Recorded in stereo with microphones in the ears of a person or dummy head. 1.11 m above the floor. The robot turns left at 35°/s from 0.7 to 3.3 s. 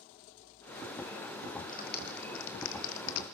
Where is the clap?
35° left (ahead or behind), 2 m; by 3.2 s 85° left, 2 m.